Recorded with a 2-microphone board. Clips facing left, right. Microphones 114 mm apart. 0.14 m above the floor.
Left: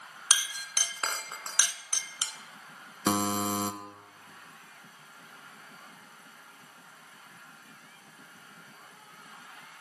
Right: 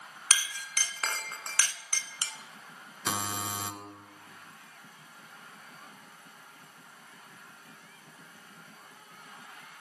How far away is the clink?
About 0.7 m.